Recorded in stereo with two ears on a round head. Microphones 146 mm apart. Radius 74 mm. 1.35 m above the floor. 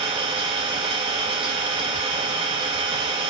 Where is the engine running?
35° right (ahead or behind), 4.5 m.